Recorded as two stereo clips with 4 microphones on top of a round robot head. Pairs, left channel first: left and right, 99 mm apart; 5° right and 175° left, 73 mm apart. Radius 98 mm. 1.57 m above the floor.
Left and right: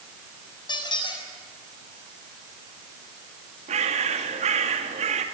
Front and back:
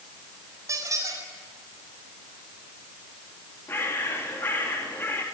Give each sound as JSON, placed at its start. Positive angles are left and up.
{"t": 0.7, "sound": "a squeak", "azimuth_deg": 135, "distance_m": 7.0}
{"t": 3.7, "sound": "a bird", "azimuth_deg": -75, "distance_m": 2.5}